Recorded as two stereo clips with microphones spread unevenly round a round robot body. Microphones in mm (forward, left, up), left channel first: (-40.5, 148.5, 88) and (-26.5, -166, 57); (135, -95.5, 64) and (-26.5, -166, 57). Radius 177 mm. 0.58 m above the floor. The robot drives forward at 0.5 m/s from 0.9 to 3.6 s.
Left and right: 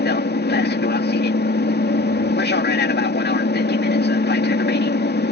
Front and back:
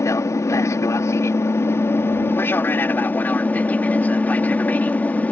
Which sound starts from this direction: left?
An aircraft, at 0.0 s.